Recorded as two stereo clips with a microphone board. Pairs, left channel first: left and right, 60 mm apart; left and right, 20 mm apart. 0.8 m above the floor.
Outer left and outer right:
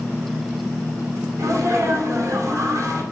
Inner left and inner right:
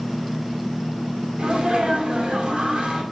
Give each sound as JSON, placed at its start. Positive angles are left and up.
{"t": 1.4, "sound": "a sneeze", "side_deg": -65, "distance_m": 2.5}